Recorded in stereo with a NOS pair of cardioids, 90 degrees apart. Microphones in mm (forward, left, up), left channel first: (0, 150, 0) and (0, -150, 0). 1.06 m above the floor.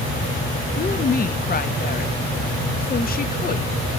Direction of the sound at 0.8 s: 30° left.